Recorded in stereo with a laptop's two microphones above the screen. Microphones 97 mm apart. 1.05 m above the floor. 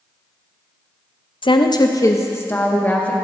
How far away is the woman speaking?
About 0.6 m.